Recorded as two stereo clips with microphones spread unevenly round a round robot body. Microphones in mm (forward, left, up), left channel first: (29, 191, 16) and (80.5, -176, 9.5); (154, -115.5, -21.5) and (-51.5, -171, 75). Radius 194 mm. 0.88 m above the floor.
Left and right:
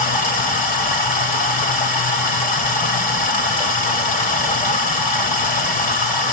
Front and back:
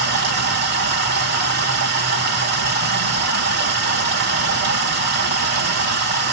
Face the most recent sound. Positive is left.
turn(degrees=170)